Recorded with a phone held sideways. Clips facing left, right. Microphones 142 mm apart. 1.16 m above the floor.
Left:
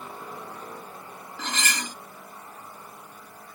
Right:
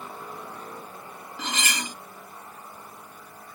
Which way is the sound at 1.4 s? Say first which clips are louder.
Even; 10° right (ahead or behind).